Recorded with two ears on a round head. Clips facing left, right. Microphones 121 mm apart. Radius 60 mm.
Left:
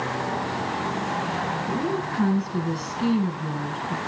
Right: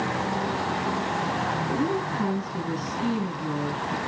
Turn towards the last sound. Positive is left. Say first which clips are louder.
# even
turn(degrees=50)  # may be behind; listen again after turning